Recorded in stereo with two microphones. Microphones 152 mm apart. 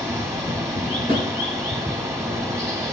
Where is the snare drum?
45° right (ahead or behind), 4 m.